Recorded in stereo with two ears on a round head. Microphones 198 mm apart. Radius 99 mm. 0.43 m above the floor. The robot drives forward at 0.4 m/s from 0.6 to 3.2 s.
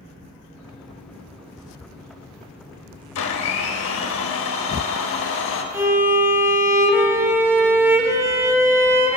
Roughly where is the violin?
Centre.